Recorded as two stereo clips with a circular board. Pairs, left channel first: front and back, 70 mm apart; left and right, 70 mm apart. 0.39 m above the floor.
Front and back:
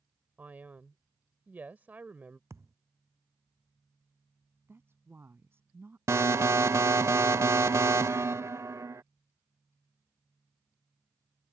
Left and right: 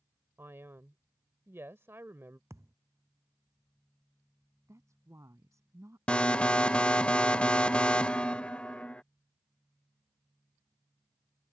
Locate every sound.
0.4 s a man speaking: 125° right
2.5 s a thud: 135° right
4.7 s a woman speaking: 130° right
6.1 s an alarm: 160° left